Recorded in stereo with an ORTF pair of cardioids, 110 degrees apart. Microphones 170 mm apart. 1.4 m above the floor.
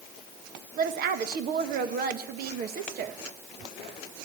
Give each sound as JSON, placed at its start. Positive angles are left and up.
{"t": 0.8, "sound": "a woman speaking", "azimuth_deg": -65, "distance_m": 1.6}